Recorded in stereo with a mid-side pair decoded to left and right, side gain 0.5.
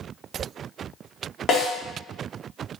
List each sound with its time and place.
1.5 s a snare drum: 55° left, 1.7 m